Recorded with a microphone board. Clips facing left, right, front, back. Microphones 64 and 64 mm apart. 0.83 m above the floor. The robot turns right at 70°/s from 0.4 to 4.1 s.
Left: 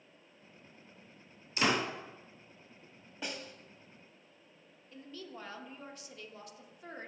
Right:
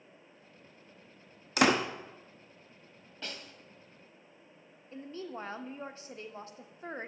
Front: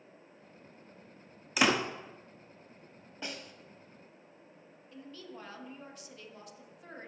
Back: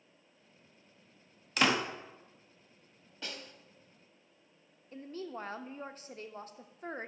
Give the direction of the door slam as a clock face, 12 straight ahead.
3 o'clock.